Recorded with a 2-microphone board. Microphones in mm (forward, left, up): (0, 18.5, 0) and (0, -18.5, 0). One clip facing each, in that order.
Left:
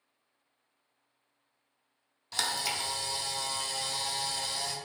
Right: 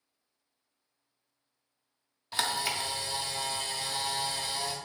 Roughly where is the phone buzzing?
No phone buzzing in this recording.